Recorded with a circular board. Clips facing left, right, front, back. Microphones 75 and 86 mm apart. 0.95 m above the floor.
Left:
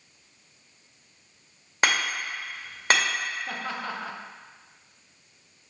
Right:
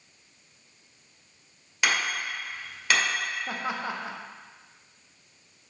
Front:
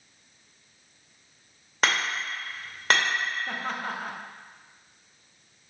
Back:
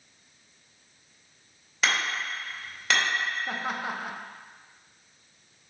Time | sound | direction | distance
1.8 | hammering | 40° left | 2 m
3.5 | laughter | 115° right | 0.6 m